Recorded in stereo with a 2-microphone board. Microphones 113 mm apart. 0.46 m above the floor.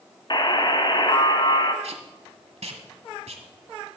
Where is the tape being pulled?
65° right (ahead or behind), 1.1 m.